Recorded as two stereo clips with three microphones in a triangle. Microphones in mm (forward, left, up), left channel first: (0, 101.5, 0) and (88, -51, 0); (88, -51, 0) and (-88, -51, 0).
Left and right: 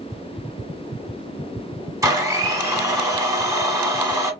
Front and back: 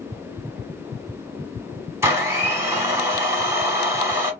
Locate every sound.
2.0 s a blender: 115° right, 1.1 m